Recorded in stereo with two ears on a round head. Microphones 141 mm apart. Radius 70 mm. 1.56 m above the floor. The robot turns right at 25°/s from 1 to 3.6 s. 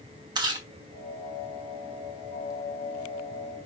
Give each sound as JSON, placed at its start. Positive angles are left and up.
{"t": 0.3, "sound": "chewing", "side_deg": -30, "distance_m": 1.0}